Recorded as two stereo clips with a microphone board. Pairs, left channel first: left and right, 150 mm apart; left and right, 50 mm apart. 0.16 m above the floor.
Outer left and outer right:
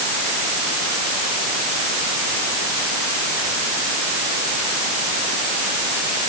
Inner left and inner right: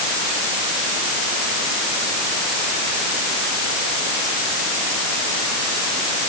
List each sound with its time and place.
Only background noise.